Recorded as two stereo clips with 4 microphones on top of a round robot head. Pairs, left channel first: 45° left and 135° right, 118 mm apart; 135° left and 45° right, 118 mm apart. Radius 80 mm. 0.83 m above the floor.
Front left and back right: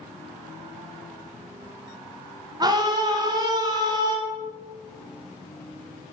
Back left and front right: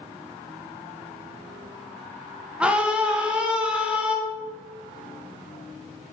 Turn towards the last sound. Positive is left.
turn(degrees=-120)